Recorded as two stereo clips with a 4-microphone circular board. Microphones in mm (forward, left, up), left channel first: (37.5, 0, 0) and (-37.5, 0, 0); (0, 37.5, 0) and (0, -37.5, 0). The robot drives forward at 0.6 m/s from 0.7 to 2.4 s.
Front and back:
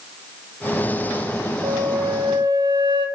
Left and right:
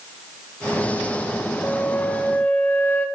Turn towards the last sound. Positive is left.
turn(degrees=160)